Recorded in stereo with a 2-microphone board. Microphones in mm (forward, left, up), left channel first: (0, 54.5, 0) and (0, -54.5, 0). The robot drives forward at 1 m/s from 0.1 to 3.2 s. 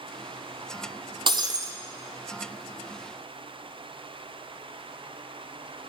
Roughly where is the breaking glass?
Right.